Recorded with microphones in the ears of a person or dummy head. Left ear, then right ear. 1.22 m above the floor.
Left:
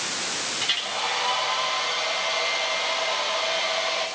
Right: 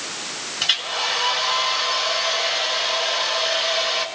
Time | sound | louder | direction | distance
0.6 | a hair dryer | right 6 dB | 25° right (ahead or behind) | 5 m